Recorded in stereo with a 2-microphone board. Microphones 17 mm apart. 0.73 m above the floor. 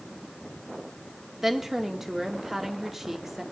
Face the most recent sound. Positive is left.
turn(degrees=-15)  # may be behind; listen again after turning